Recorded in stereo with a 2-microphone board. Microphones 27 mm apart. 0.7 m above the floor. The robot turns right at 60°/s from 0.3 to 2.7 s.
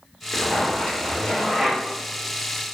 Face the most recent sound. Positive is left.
turn(degrees=-125)